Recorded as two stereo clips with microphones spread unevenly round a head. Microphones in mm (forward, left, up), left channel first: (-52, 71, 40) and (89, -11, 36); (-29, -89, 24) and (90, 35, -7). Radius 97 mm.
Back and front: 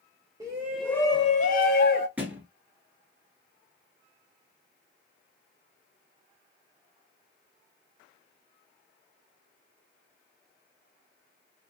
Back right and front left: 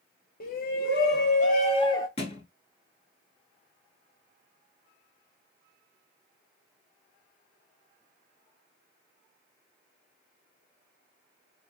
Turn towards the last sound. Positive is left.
turn(degrees=-115)